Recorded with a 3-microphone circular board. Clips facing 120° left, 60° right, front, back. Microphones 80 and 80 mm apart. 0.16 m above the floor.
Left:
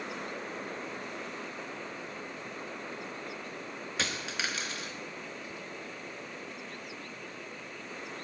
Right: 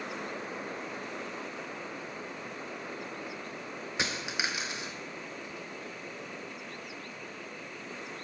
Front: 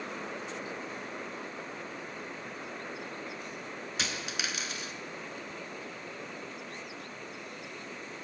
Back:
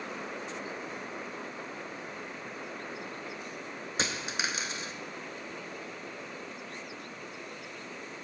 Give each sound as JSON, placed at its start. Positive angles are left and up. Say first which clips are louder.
{"t": 4.0, "sound": "a dropped coin", "louder": "right 1 dB, back 4 dB", "azimuth_deg": -125, "distance_m": 0.7}